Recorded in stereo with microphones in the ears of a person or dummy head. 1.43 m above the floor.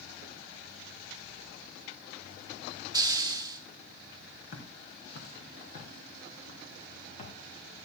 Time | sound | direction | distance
2.9 | a hiss | 25° right (ahead or behind) | 1.3 m
4.5 | footsteps | 45° left (ahead or behind) | 5 m